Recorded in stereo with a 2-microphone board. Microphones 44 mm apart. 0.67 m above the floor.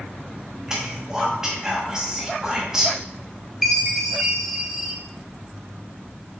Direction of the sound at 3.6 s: 5° right (ahead or behind).